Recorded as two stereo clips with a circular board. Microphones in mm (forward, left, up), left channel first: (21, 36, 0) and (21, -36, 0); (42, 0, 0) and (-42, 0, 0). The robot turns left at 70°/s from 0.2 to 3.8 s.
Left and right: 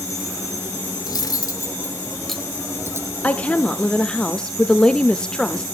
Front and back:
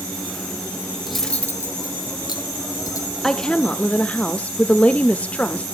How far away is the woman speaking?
About 0.9 m.